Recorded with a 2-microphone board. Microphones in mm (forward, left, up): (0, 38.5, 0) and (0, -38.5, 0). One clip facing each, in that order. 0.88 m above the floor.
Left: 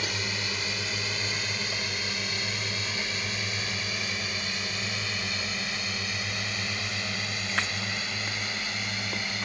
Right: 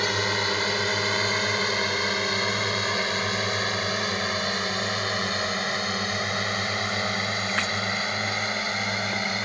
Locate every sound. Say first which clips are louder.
0.0 s a drone: right 8 dB; 55° right (ahead or behind); by 9.5 s 45° right (ahead or behind)